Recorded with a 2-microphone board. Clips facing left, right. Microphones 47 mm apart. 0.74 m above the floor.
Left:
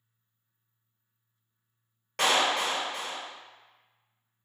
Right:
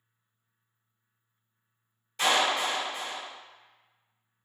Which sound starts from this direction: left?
A clap, at 2.2 s.